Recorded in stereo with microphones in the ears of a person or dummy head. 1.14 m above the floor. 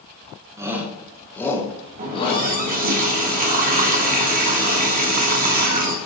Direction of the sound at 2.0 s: 50° right (ahead or behind).